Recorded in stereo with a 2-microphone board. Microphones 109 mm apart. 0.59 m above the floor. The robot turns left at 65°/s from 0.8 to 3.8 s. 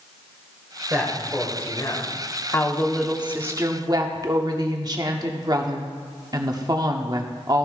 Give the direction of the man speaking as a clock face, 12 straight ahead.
5 o'clock.